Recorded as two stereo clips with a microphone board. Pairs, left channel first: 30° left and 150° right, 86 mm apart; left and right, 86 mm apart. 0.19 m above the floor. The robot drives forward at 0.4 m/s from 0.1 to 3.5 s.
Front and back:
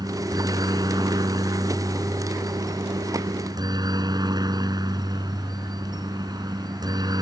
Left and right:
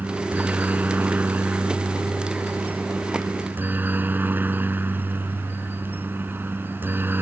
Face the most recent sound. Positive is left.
turn(degrees=-145)